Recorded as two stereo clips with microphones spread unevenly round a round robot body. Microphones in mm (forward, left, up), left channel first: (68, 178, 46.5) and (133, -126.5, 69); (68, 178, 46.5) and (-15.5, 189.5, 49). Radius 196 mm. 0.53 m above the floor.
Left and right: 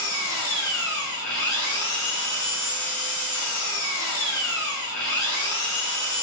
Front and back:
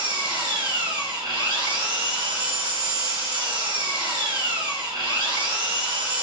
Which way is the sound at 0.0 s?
150° left.